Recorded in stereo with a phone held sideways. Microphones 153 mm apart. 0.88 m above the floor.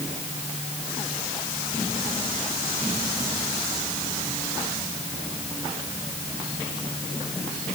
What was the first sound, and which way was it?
Only background noise.